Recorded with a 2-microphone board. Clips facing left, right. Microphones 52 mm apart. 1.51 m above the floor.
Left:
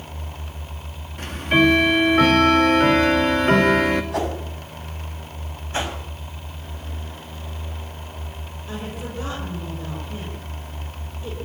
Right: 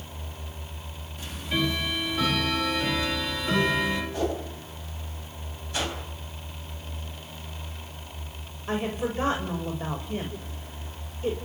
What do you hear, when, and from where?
1.2 s ticking: 50° left (ahead or behind), 2.5 m
4.1 s a whoosh: 75° left (ahead or behind), 6 m
5.7 s a whoosh: 30° left (ahead or behind), 5 m
8.7 s a woman speaking: 40° right (ahead or behind), 6 m